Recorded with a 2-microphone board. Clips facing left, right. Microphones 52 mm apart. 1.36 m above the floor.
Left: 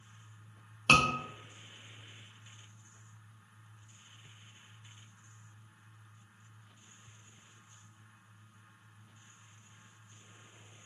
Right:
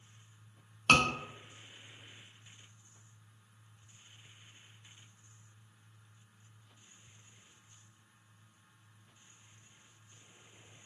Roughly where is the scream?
Centre.